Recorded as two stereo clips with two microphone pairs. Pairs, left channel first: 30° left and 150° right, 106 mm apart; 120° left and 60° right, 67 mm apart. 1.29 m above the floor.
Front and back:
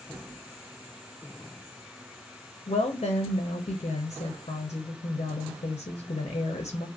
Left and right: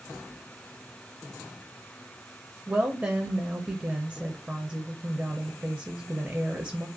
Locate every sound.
2.7 s a woman speaking: 10° left, 0.6 m